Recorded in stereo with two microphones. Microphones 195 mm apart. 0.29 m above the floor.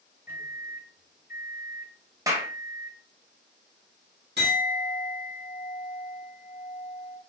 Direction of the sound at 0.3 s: 10° right (ahead or behind).